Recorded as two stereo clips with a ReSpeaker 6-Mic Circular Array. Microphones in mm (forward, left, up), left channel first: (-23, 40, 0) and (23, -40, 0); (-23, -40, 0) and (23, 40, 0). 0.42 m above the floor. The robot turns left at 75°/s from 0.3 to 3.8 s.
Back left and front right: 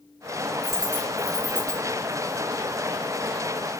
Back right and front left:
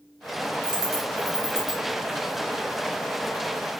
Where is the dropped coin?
35° left, 0.9 m; by 1.8 s 55° right, 0.9 m.